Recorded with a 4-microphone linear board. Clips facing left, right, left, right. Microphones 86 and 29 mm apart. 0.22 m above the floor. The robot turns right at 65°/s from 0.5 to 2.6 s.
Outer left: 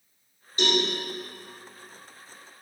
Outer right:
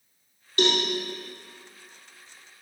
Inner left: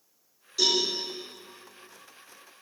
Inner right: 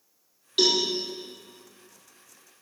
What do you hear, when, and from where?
0.6 s a cowbell: 70° right (ahead or behind), 4 m; by 0.8 s 80° right, 4 m